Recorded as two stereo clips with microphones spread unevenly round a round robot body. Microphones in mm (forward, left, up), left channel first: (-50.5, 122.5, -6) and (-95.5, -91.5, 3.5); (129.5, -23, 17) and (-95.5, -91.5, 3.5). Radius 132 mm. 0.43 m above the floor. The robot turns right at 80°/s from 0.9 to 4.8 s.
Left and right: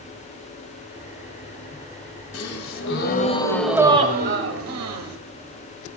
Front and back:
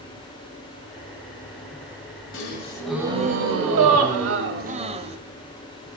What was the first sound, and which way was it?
A gasp, 65° left.